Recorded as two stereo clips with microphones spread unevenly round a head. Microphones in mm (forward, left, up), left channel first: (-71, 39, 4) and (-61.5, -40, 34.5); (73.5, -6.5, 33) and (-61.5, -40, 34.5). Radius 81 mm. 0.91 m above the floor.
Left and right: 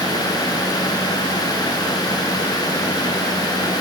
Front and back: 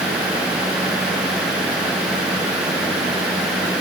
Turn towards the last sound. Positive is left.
No sound to turn to.